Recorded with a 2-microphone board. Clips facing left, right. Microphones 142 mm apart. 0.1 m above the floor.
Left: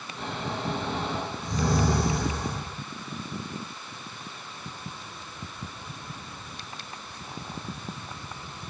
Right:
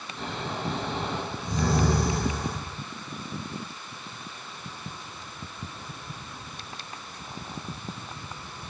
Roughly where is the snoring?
Centre.